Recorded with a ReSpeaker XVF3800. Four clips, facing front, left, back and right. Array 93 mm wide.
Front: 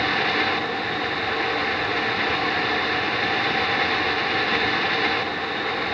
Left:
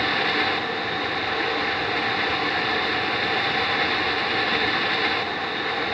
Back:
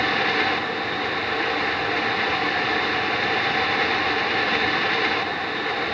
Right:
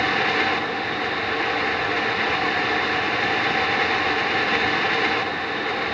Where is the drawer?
I don't hear a drawer.